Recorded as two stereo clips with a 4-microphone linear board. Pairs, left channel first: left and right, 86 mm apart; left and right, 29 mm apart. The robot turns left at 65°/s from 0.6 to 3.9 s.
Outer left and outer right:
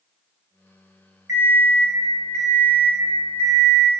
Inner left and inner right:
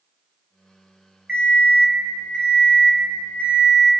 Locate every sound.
1.3 s an alarm clock: 125° right, 0.6 m; by 3.9 s 70° left, 0.6 m